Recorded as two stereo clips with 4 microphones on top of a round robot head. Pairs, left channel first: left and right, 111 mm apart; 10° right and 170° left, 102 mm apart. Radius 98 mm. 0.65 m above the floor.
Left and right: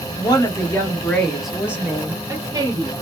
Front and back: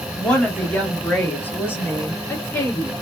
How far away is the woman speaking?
About 1.3 m.